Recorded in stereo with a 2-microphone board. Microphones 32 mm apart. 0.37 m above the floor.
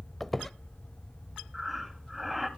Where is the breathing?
5° right (ahead or behind), 2.5 m.